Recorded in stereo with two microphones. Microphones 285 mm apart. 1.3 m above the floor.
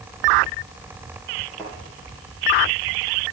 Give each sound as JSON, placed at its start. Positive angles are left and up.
{"t": 1.6, "sound": "a thud", "side_deg": 0, "distance_m": 8.5}